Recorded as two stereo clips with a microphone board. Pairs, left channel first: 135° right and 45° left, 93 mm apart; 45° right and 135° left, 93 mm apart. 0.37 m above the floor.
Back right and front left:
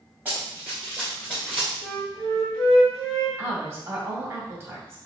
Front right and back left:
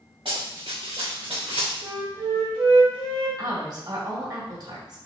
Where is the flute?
140° left, 2.5 m.